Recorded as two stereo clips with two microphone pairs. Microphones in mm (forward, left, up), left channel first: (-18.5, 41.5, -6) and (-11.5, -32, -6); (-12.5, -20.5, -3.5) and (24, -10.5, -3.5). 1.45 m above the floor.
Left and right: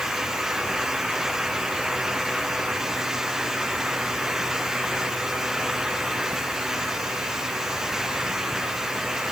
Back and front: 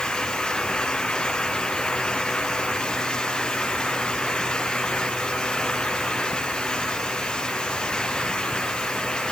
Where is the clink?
No clink in this recording.